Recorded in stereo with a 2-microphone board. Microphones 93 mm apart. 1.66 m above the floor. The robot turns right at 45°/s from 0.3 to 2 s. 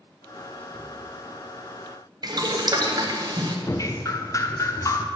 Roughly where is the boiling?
Right.